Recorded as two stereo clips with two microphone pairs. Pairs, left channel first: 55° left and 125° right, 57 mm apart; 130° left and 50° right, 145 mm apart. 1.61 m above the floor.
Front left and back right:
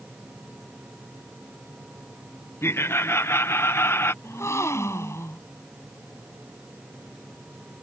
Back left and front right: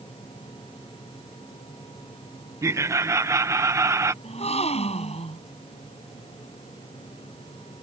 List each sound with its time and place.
2.6 s laughter: 20° left
4.2 s a gasp: 90° left